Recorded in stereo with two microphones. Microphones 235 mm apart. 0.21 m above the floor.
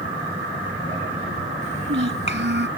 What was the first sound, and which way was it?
A child speaking, 50° right (ahead or behind).